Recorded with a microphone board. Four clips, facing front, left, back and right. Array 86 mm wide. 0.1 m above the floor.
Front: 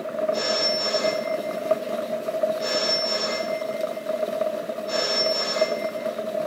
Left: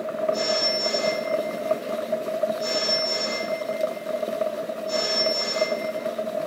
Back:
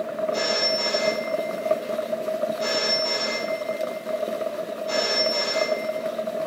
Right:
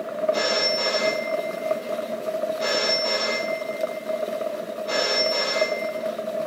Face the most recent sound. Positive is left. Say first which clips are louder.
# right 1 dB, even
turn(degrees=-105)